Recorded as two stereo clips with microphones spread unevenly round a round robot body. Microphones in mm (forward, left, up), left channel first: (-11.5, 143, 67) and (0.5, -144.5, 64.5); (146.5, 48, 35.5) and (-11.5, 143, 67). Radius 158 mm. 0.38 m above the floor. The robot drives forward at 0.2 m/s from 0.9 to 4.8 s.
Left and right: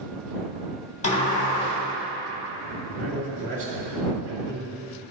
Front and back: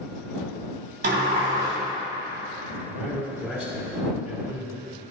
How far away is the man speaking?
About 2 m.